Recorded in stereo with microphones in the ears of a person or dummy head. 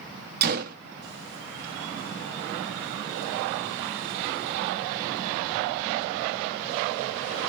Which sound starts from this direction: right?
A gunshot, at 0.4 s.